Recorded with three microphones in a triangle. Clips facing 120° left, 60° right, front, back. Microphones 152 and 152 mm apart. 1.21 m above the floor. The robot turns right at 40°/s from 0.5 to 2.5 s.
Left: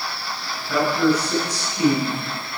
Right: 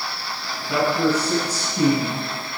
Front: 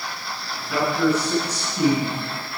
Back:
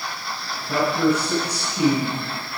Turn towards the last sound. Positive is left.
turn(degrees=-65)